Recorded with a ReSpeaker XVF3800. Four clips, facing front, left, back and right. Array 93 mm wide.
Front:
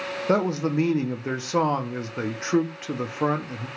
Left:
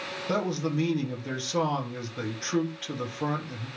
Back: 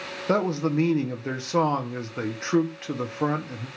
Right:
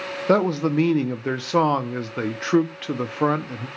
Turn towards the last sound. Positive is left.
turn(degrees=-85)